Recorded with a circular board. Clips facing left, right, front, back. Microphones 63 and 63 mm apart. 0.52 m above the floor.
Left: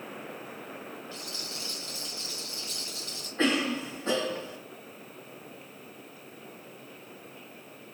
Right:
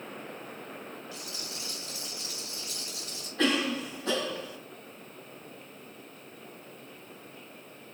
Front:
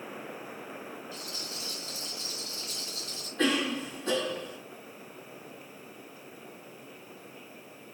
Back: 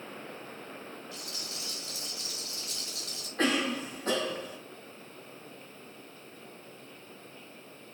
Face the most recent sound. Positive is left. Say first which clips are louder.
# left 1 dB, front 1 dB
turn(degrees=150)